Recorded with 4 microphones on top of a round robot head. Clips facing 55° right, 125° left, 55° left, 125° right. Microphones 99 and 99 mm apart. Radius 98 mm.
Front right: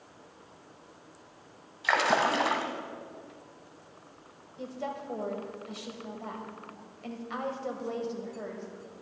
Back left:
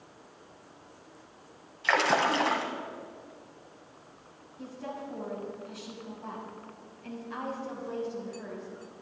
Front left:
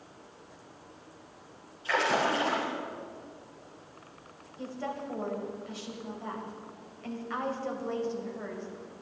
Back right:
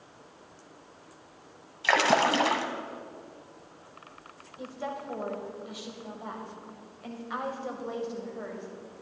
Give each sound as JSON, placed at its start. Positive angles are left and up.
{"t": 1.8, "sound": "a splash", "azimuth_deg": -140, "distance_m": 1.2}
{"t": 4.6, "sound": "a woman speaking", "azimuth_deg": -50, "distance_m": 2.5}